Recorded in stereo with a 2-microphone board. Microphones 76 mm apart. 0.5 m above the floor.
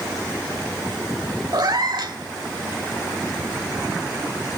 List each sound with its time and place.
1.5 s a cat meowing: 65° right (ahead or behind), 1.1 m